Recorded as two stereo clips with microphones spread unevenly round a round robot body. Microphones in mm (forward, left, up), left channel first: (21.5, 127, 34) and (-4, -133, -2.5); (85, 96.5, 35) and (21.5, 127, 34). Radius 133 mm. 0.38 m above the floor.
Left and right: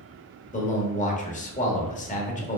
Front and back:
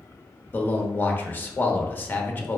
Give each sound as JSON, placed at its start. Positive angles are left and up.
{"t": 0.5, "sound": "a man speaking", "azimuth_deg": 25, "distance_m": 1.1}